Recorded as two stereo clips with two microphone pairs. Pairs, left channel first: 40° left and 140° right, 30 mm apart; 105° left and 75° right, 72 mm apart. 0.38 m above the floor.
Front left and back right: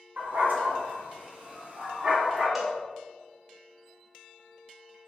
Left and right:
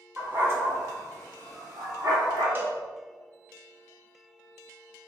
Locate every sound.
0.2 s a dog barking: 135° right, 1.4 m; by 2.5 s 75° right, 1.1 m
2.5 s a cowbell: 65° right, 0.7 m